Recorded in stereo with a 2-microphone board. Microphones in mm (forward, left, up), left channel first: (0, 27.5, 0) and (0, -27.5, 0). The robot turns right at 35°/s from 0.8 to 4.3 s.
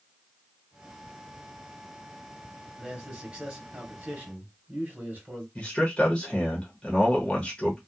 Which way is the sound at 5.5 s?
20° left (ahead or behind).